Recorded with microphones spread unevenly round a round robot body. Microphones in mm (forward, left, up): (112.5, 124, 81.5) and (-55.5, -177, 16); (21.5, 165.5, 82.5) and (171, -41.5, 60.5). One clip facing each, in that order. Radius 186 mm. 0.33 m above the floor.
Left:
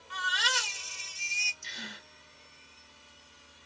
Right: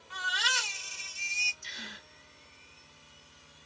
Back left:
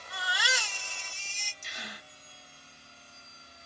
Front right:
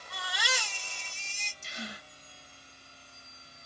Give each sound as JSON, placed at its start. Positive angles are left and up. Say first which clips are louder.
{"t": 0.1, "sound": "a baby crying", "louder": "left 3 dB, back left 1 dB", "azimuth_deg": 35, "distance_m": 1.6}
{"t": 1.6, "sound": "a gasp", "louder": "left 3 dB, front right 5 dB", "azimuth_deg": 5, "distance_m": 1.9}